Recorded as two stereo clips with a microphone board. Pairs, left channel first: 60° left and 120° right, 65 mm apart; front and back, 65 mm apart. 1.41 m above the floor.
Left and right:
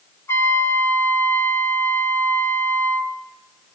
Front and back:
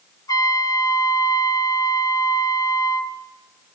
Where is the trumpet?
15° left, 2.5 m.